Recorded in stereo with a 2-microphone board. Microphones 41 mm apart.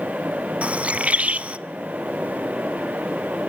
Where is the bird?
35° right (ahead or behind), 0.6 m.